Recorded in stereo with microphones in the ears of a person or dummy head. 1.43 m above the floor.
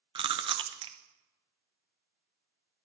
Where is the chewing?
30° right (ahead or behind), 0.5 m.